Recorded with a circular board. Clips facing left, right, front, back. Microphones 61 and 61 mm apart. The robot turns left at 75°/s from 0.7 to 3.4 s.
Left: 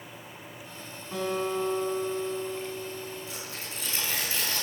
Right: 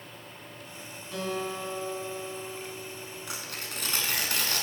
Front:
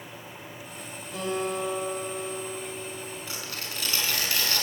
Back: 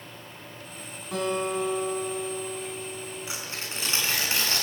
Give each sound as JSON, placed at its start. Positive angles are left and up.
{"t": 1.1, "sound": "a guitar", "azimuth_deg": 150, "distance_m": 7.5}
{"t": 3.3, "sound": "tearing paper", "azimuth_deg": -105, "distance_m": 6.0}